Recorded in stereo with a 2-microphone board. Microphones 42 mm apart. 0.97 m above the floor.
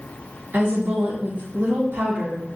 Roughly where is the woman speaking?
Right.